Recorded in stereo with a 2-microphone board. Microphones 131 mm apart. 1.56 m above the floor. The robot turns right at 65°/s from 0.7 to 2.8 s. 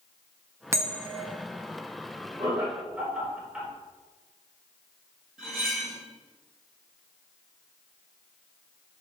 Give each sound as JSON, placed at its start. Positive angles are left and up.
{"t": 0.7, "sound": "a bell", "side_deg": -20, "distance_m": 0.9}
{"t": 2.4, "sound": "laughter", "side_deg": -30, "distance_m": 4.5}
{"t": 5.4, "sound": "cutlery clinking", "side_deg": 0, "distance_m": 4.5}